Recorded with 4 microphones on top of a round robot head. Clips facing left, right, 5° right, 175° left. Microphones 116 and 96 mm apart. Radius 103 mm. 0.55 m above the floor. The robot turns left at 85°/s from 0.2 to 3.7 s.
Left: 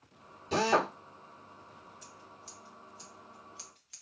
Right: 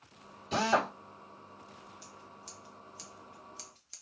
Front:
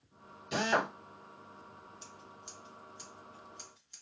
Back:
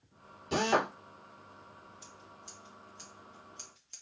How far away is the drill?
About 2.0 m.